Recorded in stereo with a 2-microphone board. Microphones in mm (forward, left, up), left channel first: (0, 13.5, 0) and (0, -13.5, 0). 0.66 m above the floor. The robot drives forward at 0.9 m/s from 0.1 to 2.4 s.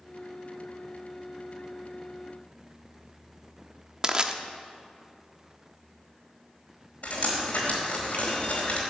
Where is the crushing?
30° right (ahead or behind), 0.8 m.